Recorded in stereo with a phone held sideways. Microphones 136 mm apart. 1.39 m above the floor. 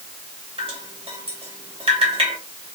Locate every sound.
0.6 s dripping: 40° right (ahead or behind), 2 m